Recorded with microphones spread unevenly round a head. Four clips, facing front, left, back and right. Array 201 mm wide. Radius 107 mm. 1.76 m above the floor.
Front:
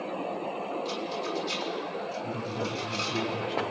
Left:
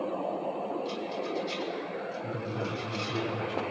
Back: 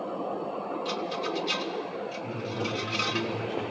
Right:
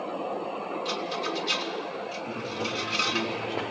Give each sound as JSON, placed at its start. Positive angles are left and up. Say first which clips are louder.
{"t": 0.8, "sound": "a rattle", "louder": "right 3 dB, back 1 dB", "azimuth_deg": -120, "distance_m": 3.0}
{"t": 2.2, "sound": "a woman speaking", "louder": "right 1 dB, even", "azimuth_deg": 95, "distance_m": 8.0}